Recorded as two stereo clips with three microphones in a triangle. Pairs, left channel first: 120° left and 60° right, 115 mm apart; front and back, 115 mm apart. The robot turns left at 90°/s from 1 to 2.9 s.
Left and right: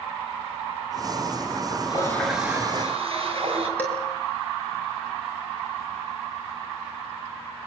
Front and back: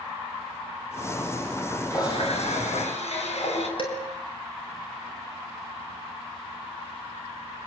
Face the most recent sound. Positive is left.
turn(degrees=45)